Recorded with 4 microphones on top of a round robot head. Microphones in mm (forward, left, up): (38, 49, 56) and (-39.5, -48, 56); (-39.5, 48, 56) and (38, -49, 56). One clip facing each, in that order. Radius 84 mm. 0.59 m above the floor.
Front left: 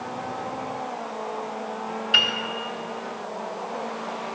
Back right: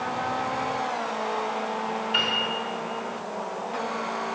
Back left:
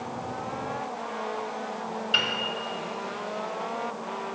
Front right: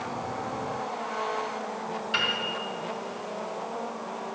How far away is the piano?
About 1.9 m.